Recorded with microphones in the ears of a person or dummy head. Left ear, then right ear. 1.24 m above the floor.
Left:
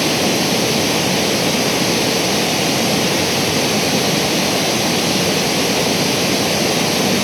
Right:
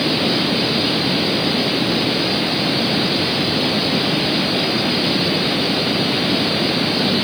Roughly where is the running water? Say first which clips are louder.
Left 2 dB; left.